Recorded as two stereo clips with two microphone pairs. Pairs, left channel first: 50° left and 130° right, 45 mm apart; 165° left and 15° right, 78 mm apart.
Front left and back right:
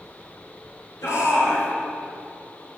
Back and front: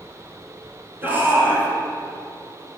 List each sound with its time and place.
1.0 s a shout: 50° left, 3.5 m